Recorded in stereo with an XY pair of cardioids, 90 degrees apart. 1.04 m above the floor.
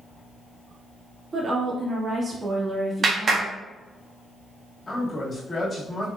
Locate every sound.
1.3 s a woman speaking: 40° right, 1.7 m
3.0 s a clap: 50° right, 1.0 m
4.9 s a man speaking: 35° left, 1.9 m